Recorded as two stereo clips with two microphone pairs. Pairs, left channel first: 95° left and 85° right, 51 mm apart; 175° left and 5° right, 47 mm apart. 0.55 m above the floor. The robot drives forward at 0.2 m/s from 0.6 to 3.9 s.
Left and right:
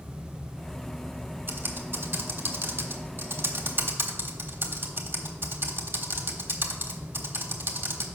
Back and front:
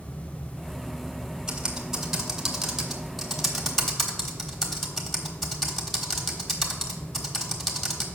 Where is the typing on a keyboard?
75° right, 1.3 m; by 8.1 s 100° right, 1.3 m.